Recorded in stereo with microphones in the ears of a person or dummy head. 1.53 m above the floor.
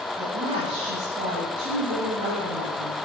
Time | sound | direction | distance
0.2 | a woman speaking | 45° right (ahead or behind) | 1.9 m